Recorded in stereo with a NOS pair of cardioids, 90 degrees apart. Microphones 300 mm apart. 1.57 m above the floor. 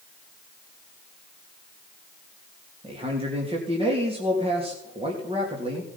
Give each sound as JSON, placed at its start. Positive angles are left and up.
{"t": 2.8, "sound": "a man speaking", "azimuth_deg": -20, "distance_m": 2.5}